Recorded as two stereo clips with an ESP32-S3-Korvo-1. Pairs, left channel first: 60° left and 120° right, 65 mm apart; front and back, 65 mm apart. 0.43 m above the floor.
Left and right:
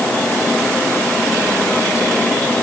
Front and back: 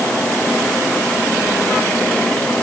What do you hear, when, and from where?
Only background noise.